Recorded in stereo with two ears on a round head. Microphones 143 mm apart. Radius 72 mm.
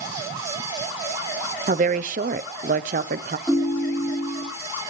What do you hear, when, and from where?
1.7 s a woman speaking: 55° right (ahead or behind), 0.7 m
3.5 s a ringtone: centre (ahead or behind), 3.5 m